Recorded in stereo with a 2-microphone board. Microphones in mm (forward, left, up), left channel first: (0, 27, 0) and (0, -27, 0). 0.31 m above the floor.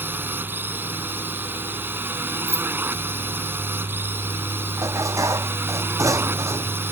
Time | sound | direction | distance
0.0 | a drone | 40° right (ahead or behind) | ?
2.5 | keys jangling | 70° left (ahead or behind) | ?
4.8 | dishes clattering | 85° right | ?